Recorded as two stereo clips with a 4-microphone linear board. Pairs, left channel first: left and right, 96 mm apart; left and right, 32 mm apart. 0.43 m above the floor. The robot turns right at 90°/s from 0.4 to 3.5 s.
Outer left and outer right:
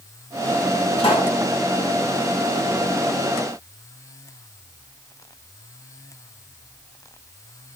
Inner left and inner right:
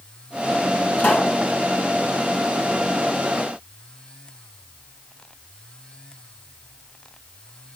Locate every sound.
1.0 s a pop: 90° left, 2.5 m; by 1.4 s 125° left, 2.5 m